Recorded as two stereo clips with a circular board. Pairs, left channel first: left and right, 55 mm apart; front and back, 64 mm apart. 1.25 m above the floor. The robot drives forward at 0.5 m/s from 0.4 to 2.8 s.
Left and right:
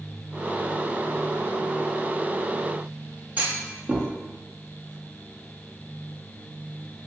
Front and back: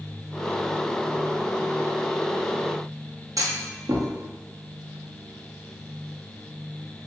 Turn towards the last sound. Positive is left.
turn(degrees=-150)